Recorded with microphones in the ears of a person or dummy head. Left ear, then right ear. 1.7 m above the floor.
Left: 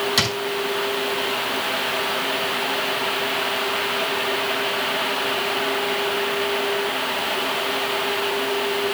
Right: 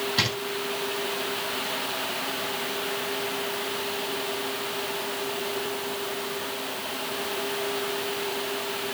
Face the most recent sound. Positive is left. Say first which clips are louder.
# left 3 dB
turn(degrees=70)  # may be behind; listen again after turning